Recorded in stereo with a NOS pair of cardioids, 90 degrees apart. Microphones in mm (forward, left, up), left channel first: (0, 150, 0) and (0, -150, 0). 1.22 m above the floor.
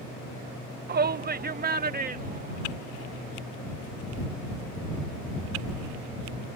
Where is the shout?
35° right; by 3.3 s 30° right.